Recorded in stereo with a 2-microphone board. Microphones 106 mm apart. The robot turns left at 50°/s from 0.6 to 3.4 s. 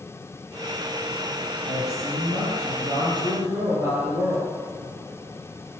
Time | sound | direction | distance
1.6 | a man speaking | 60° right | 9.5 m